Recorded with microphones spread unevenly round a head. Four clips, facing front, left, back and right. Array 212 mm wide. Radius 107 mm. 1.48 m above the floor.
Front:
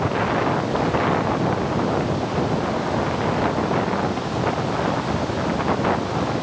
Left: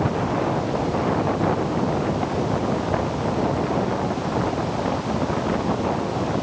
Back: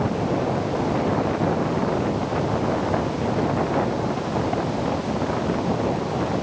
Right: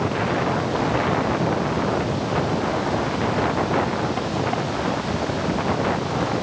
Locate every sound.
Only background noise.